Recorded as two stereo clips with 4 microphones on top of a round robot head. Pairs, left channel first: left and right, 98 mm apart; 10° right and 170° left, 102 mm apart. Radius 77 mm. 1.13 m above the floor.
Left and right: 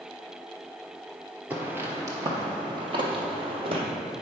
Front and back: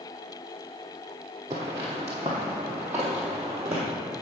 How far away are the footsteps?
About 1.2 m.